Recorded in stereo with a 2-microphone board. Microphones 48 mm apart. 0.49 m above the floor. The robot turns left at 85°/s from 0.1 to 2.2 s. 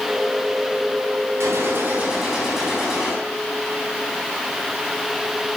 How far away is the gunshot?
About 4 m.